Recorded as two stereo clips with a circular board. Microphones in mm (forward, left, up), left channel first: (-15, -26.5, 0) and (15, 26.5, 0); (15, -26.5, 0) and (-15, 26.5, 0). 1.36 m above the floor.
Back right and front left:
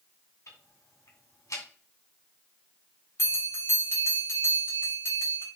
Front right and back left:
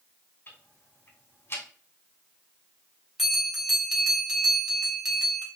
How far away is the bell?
About 3.5 m.